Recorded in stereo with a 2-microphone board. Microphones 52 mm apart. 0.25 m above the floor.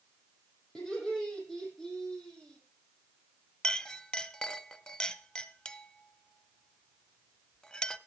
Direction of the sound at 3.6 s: 15° left (ahead or behind).